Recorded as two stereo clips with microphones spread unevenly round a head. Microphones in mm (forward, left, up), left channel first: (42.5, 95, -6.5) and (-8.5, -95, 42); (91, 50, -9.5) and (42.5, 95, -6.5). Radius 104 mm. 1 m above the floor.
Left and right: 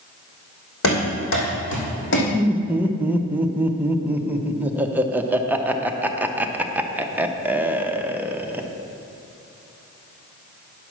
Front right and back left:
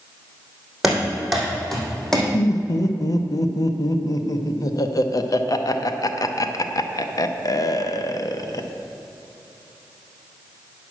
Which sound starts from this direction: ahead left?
Running footsteps, at 0.8 s.